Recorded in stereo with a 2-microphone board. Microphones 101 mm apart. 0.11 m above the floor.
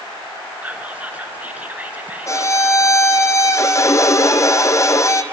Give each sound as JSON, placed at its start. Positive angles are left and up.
{"t": 0.6, "sound": "whispering", "side_deg": -15, "distance_m": 1.7}
{"t": 2.3, "sound": "a violin", "side_deg": 30, "distance_m": 1.0}